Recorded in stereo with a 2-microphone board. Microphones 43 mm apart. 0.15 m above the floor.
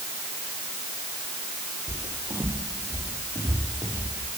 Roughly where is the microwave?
I don't hear a microwave.